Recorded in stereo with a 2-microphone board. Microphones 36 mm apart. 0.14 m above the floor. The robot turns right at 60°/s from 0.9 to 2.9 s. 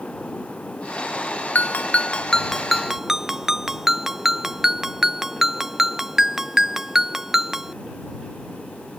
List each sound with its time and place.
1.6 s a ringtone: 110° left; by 7.8 s 165° right